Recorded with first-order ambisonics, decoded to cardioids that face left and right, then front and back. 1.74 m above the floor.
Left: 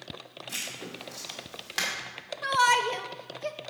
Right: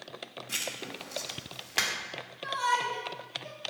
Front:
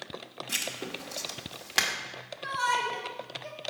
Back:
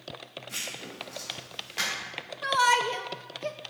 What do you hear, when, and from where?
0.5 s writing: 10° right, 1.8 m
2.4 s a shout: 125° left, 0.9 m